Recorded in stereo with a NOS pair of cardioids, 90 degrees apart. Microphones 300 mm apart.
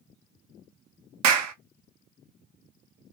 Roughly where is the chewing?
No chewing in this recording.